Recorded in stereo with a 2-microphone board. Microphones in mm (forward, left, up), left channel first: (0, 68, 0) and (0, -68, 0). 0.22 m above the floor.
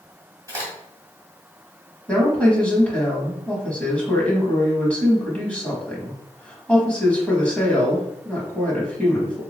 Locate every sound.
0.5 s a crack: 25° right (ahead or behind), 1.6 m
2.1 s a woman speaking: 10° left (ahead or behind), 1.1 m